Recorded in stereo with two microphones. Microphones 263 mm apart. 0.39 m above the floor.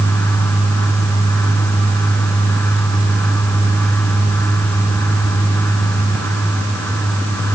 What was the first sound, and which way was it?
Only background noise.